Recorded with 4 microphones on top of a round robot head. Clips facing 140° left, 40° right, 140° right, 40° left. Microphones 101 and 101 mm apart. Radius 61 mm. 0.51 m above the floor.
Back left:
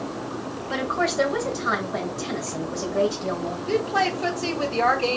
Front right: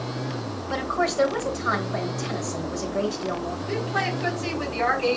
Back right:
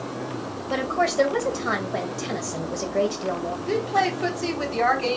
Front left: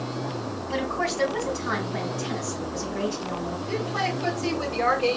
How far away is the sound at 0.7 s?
About 2.5 m.